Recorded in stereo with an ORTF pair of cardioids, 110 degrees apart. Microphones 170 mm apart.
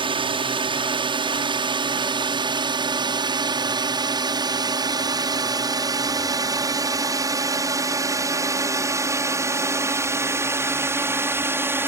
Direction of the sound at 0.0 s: 35° right.